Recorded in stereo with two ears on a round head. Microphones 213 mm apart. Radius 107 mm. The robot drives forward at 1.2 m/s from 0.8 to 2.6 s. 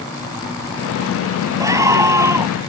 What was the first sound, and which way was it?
A scream, 15° right (ahead or behind).